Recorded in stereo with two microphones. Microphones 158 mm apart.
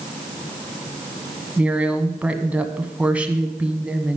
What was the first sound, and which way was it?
A woman speaking, 10° right (ahead or behind).